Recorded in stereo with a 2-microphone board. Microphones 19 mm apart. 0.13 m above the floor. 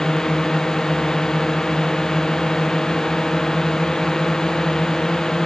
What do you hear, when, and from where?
0.0 s a drone: 30° left (ahead or behind)